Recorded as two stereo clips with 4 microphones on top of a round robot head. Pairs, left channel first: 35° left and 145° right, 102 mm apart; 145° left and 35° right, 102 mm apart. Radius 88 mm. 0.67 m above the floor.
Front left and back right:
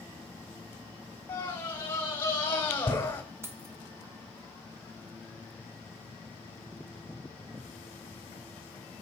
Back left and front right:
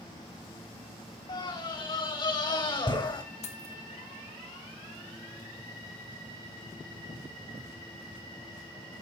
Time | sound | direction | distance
1.3 | a scream | 105° left | 3.5 m
3.4 | keys jangling | 145° left | 1.9 m